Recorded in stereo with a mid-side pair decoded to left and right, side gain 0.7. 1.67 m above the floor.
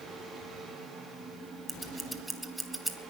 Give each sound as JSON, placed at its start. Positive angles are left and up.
{"t": 0.0, "sound": "a fan", "azimuth_deg": -15, "distance_m": 4.5}
{"t": 1.7, "sound": "scissors", "azimuth_deg": -5, "distance_m": 1.5}